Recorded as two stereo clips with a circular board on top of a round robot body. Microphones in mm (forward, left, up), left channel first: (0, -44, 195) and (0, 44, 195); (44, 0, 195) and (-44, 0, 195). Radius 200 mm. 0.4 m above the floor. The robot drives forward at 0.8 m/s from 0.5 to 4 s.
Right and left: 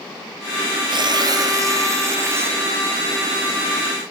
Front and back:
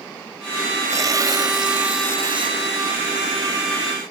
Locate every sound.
0.9 s tearing paper: 120° left, 1.3 m; by 3.3 s 160° left, 3 m